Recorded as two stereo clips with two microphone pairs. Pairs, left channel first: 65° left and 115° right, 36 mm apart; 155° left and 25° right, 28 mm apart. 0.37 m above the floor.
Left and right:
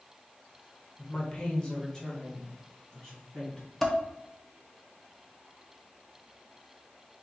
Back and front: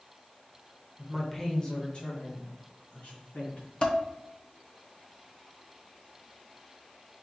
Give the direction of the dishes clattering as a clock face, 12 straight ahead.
7 o'clock.